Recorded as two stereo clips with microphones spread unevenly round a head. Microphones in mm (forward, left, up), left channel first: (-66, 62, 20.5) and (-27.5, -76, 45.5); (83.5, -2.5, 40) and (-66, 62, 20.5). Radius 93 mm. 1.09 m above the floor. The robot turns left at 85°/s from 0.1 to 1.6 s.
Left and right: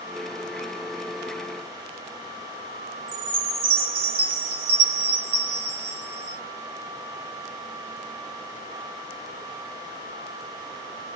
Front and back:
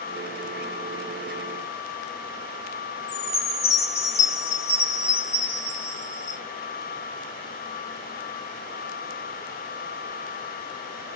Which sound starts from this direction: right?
A chime, at 3.1 s.